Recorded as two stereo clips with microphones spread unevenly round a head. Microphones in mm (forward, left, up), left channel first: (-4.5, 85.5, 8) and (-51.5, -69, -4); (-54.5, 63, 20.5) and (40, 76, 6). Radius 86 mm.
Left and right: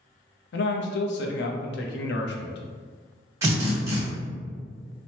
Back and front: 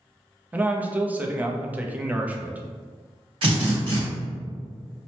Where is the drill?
35° right, 1.2 m.